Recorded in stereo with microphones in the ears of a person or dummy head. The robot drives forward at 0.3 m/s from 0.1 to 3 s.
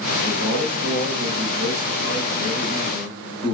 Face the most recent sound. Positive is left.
turn(degrees=35)  # may be behind; listen again after turning